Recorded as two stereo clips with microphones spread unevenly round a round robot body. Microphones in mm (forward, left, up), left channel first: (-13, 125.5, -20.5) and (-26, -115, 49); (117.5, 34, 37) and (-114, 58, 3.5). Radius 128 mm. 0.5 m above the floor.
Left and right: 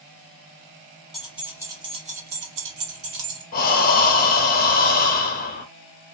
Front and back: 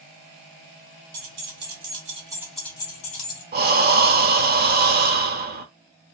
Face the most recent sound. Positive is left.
turn(degrees=130)